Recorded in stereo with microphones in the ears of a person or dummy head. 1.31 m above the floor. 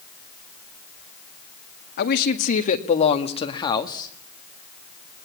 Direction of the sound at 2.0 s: 50° left (ahead or behind).